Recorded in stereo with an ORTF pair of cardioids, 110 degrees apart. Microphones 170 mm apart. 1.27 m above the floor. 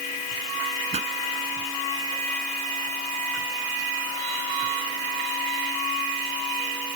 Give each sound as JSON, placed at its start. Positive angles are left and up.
{"t": 0.9, "sound": "a pop", "azimuth_deg": -35}